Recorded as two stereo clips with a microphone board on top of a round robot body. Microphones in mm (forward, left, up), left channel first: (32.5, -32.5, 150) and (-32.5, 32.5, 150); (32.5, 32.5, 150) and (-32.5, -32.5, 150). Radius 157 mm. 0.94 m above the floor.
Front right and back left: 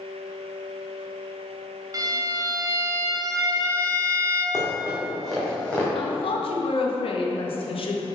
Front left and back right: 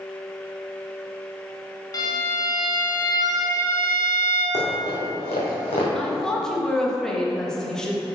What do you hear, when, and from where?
1.9 s a violin: 85° left, 1.5 m
4.5 s running footsteps: 55° left, 2.5 m; by 5.8 s 35° left, 2.5 m
6.0 s a woman speaking: 40° right, 1.4 m